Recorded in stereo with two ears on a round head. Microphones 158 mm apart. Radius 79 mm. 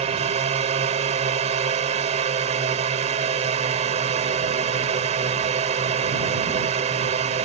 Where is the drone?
40° right (ahead or behind).